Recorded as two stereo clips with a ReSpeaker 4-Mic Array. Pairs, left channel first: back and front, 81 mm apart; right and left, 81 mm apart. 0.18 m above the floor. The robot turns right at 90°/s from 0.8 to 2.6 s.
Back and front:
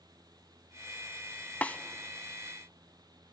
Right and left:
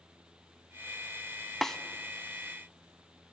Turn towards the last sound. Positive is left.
turn(degrees=-80)